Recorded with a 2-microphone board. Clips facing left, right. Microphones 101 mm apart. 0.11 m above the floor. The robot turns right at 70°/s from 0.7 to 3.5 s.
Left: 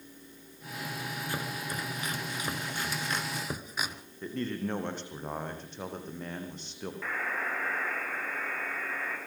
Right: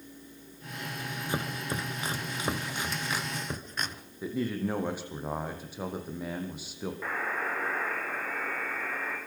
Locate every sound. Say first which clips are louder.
1.3 s chopping: right 5 dB; 20° right (ahead or behind), 1.4 m; by 4.0 s 5° left (ahead or behind), 1.4 m
4.2 s a man speaking: right 3 dB; 10° right (ahead or behind), 4.5 m
7.0 s a buzzer: right 1 dB; 15° right (ahead or behind), 7.5 m